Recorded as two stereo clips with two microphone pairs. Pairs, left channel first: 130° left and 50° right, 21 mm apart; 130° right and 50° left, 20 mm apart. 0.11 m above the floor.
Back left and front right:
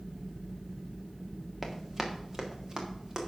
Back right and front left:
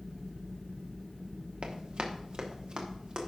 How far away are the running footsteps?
About 1.7 m.